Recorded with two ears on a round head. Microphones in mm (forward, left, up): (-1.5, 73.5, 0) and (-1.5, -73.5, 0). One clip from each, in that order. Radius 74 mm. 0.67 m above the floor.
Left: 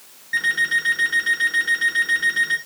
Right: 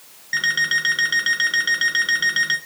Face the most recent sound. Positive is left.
turn(degrees=-55)  # may be behind; listen again after turning